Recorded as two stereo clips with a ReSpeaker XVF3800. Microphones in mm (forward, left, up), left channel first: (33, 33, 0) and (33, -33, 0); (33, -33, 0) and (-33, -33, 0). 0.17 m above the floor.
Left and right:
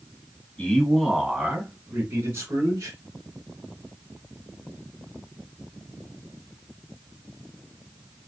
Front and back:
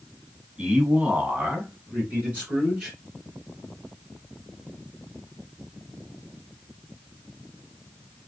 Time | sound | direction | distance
0.6 | a man speaking | 130° left | 1.3 m